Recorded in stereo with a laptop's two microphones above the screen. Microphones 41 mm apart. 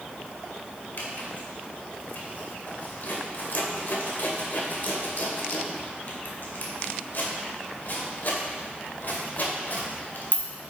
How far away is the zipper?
About 2 m.